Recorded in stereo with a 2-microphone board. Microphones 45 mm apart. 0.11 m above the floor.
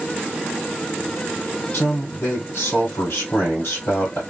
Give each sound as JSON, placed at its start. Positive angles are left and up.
{"t": 1.7, "sound": "a man speaking", "side_deg": 60, "distance_m": 2.0}